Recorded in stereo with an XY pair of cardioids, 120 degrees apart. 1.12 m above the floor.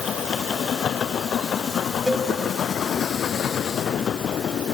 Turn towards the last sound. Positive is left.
turn(degrees=10)